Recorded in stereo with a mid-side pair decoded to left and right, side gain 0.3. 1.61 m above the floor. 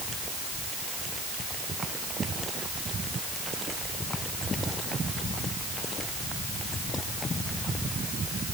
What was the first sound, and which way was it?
Only background noise.